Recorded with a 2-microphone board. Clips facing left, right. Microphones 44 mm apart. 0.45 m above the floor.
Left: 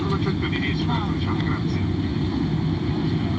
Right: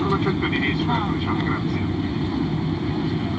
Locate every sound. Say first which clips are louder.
0.0 s an aircraft: right 3 dB; 25° right (ahead or behind); by 3.4 s 10° right (ahead or behind)